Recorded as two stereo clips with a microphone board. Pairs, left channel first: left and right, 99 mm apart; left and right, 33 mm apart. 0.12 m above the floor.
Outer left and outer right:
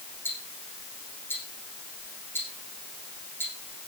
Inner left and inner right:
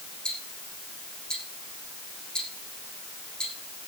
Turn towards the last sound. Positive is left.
turn(degrees=20)  # may be behind; listen again after turning